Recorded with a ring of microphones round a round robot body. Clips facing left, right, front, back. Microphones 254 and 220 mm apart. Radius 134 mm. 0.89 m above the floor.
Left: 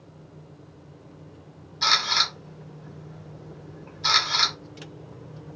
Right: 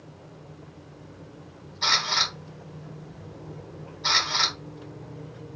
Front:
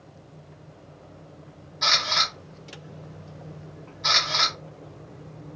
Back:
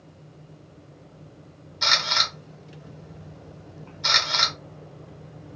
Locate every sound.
1.8 s a camera shutter: 135° left, 1.1 m